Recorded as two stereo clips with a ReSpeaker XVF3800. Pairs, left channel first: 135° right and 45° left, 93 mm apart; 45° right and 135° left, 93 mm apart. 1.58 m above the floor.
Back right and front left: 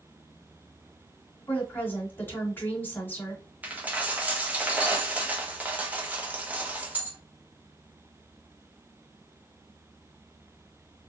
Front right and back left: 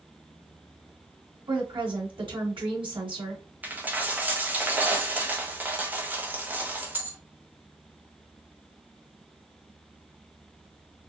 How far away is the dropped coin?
About 1.0 m.